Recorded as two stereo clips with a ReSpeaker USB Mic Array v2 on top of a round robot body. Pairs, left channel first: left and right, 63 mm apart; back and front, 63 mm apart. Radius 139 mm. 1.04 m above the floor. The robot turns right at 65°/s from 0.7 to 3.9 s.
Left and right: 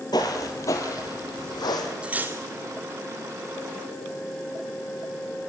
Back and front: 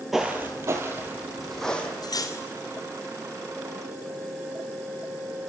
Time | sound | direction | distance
0.1 | footsteps | 90° left | 1.1 m
2.0 | cutlery clinking | 165° right | 1.9 m